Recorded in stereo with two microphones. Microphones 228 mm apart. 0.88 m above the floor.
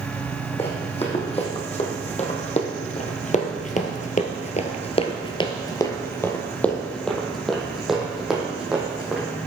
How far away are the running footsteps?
About 2.5 m.